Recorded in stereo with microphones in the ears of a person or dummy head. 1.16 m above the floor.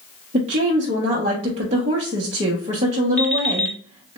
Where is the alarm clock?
5° left (ahead or behind), 1.2 m.